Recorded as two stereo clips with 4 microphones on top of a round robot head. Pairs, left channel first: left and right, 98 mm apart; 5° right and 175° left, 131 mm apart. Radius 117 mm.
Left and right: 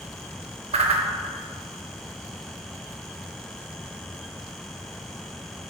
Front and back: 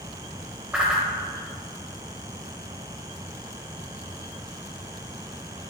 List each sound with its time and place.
0.7 s a whoosh: 100° right, 0.6 m